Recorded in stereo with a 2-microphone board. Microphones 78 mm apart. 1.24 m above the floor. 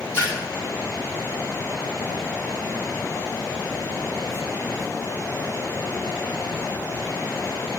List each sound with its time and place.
0.1 s a splash: 30° left (ahead or behind), 3 m